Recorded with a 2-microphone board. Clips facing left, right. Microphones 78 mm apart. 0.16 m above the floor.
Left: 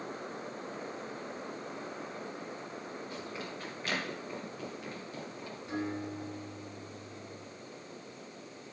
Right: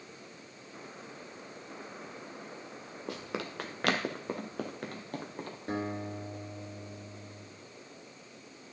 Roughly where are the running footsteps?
Right.